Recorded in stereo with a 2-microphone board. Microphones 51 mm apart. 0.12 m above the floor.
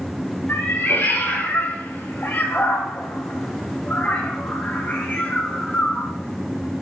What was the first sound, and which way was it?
A cat meowing, 40° left (ahead or behind).